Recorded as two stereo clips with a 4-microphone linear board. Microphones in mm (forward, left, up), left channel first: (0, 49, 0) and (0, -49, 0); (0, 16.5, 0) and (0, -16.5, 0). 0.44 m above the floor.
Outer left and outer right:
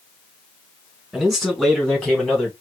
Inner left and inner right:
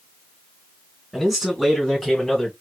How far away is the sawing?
No sawing in this recording.